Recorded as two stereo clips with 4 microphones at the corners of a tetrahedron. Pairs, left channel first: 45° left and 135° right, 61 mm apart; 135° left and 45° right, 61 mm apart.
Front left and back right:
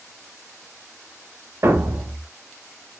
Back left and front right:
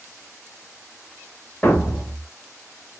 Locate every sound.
1.6 s a thud: 160° right, 1.3 m